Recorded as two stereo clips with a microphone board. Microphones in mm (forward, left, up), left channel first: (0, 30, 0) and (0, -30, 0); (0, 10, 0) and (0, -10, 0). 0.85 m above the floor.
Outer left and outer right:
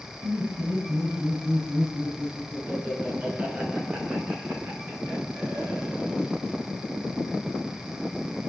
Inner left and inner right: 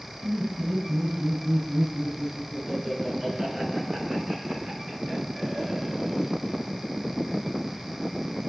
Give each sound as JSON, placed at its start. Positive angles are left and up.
{"t": 0.2, "sound": "laughter", "side_deg": -20, "distance_m": 7.0}